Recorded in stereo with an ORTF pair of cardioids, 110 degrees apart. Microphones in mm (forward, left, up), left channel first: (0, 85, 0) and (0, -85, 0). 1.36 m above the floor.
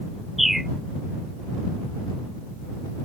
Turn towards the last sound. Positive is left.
turn(degrees=0)